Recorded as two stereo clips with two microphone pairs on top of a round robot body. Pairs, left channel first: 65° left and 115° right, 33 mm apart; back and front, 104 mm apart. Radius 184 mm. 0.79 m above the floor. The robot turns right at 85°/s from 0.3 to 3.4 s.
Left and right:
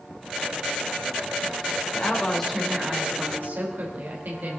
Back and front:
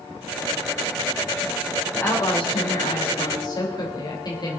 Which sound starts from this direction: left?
A woman speaking, at 1.9 s.